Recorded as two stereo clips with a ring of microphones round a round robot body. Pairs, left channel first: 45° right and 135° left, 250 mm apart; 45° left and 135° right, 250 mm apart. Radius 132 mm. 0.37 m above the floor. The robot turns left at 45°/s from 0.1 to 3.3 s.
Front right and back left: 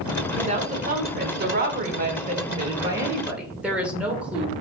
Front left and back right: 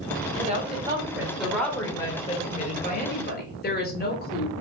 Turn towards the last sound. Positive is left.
turn(degrees=50)